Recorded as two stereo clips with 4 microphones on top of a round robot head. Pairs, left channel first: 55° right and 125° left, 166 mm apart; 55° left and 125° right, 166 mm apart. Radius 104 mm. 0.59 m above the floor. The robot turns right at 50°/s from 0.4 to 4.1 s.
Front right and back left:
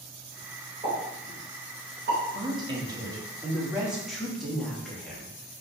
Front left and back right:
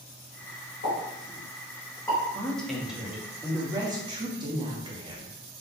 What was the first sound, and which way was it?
A pop, 65° left.